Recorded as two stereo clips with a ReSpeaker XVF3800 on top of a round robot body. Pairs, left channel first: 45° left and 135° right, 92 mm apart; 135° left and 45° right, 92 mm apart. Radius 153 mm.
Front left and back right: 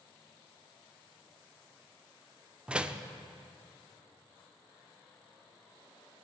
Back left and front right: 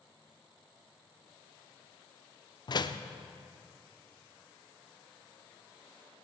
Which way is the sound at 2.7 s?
150° left.